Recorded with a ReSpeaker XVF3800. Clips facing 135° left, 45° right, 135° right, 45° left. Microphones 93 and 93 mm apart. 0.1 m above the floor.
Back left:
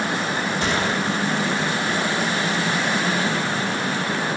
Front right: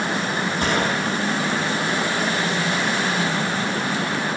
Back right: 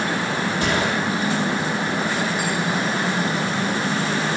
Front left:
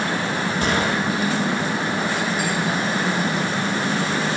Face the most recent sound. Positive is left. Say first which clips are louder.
# front right 2 dB, front left 1 dB
turn(degrees=-5)